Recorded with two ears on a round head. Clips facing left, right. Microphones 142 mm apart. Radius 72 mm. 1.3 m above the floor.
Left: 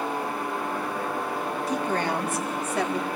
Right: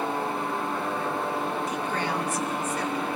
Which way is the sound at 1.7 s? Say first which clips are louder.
Left 3 dB; 30° left (ahead or behind).